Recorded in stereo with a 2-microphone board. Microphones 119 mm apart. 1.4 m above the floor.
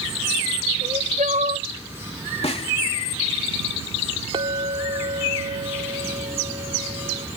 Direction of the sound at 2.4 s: 60° left (ahead or behind).